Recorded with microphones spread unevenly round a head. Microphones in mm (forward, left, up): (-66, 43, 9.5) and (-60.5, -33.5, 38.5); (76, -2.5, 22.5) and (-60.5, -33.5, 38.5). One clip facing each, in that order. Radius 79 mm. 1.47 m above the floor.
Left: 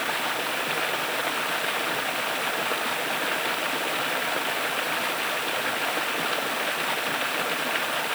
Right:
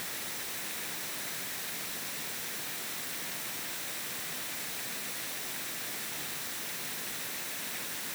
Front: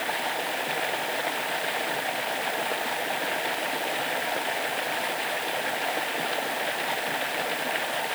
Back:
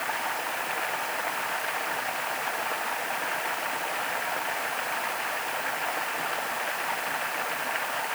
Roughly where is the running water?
Left.